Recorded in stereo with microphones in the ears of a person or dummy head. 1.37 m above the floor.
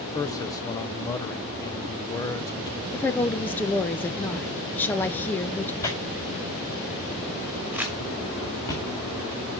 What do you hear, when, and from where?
0.1 s a man speaking: 20° left (ahead or behind), 1.0 m
2.9 s a woman speaking: 15° left (ahead or behind), 1.1 m
5.8 s tearing paper: 20° left (ahead or behind), 4.5 m
7.7 s crumpling: 10° right (ahead or behind), 2.5 m